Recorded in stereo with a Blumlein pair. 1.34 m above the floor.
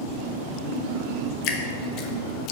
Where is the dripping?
35° left, 0.8 m.